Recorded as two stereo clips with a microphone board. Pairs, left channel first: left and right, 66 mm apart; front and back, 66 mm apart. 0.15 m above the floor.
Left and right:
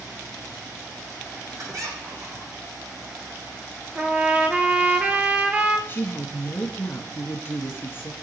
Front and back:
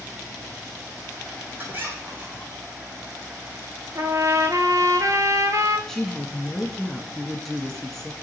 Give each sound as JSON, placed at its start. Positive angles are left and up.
{"t": 1.6, "sound": "a squeak", "azimuth_deg": -120, "distance_m": 4.5}
{"t": 4.0, "sound": "a trumpet", "azimuth_deg": -155, "distance_m": 1.2}
{"t": 5.9, "sound": "a woman speaking", "azimuth_deg": 80, "distance_m": 1.3}